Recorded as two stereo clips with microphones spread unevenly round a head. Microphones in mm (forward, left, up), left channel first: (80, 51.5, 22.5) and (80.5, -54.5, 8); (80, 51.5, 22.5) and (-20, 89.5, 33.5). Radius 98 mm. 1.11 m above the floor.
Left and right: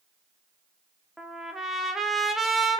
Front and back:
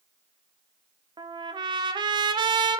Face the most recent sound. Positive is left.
turn(degrees=-170)